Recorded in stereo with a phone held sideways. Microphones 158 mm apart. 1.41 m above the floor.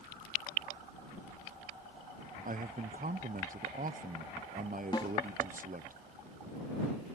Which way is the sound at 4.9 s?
30° left (ahead or behind).